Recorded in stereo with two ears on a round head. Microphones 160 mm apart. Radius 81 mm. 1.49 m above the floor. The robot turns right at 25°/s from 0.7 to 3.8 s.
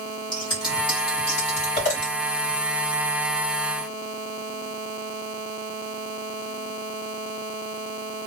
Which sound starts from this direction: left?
Scissors, at 0.3 s.